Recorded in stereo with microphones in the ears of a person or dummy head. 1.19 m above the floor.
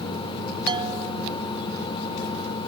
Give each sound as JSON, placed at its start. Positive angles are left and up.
{"t": 0.7, "sound": "a bell", "side_deg": -25}